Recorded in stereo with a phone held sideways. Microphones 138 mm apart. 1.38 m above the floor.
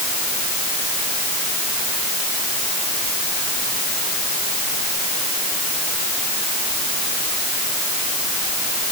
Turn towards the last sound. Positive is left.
No sound to turn to.